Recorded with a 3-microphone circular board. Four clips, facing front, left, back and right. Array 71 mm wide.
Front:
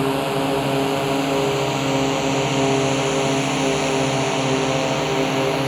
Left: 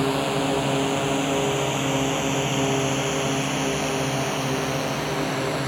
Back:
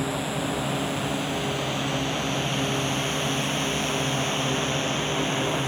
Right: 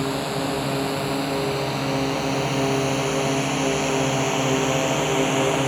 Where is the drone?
15° left; by 5.7 s 35° right.